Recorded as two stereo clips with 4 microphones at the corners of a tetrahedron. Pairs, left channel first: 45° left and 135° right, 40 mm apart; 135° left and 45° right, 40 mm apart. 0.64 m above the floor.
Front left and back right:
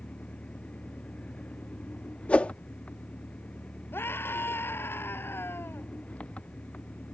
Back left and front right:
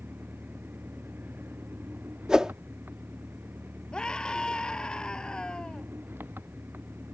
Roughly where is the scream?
Ahead left.